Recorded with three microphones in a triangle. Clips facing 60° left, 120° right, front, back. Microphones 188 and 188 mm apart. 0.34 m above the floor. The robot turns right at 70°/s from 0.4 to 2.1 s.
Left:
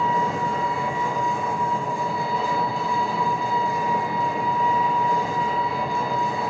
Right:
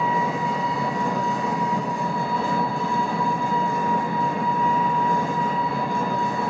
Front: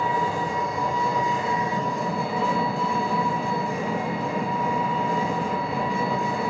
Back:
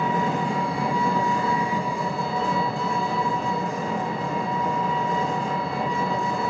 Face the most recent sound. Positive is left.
turn(degrees=-80)